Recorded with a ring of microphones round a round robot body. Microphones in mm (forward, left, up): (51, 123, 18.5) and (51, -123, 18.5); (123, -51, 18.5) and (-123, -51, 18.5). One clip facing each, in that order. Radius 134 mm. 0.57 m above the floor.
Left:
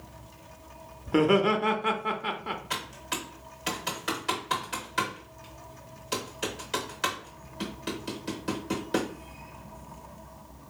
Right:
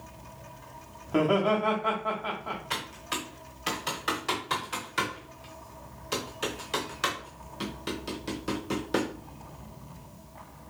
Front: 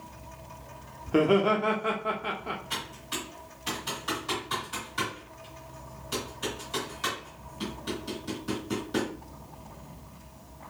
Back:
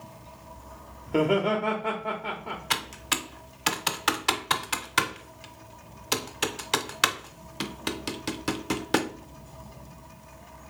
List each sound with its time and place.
1.1 s laughter: 70° left, 0.7 m
2.7 s typing on a keyboard: straight behind, 0.7 m